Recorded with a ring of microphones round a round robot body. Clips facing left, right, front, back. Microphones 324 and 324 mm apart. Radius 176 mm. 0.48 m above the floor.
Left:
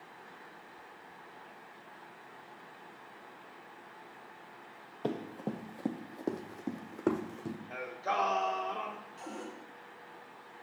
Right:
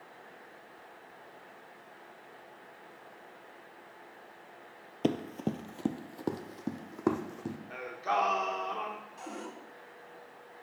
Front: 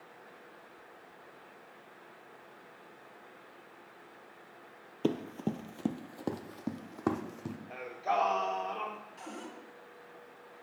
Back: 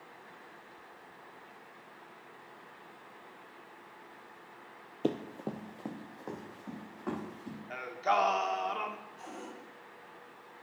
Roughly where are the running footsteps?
Right.